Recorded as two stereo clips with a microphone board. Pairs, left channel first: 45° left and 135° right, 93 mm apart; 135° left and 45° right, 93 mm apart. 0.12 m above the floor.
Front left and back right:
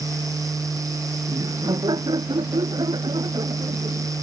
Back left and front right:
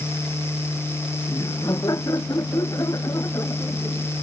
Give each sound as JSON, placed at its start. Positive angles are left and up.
{"t": 1.3, "sound": "laughter", "azimuth_deg": -175}